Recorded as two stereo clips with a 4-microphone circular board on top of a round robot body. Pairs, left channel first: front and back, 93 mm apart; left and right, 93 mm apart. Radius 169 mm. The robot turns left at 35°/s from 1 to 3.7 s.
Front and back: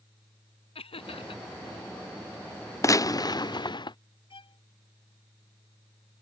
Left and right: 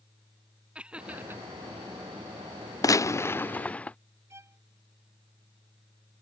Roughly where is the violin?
Ahead right.